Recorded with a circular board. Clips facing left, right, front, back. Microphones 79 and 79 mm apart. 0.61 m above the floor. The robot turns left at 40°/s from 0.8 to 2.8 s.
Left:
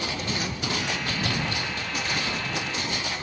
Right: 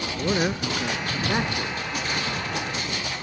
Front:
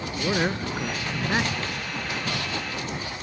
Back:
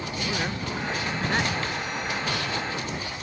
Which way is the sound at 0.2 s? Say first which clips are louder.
Right 6 dB, front 6 dB; 65° right.